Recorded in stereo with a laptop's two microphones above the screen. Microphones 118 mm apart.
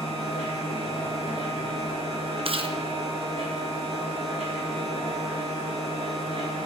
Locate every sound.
0.0 s a machine running: 60° right (ahead or behind), 2 m
2.5 s chewing: 50° right (ahead or behind), 0.5 m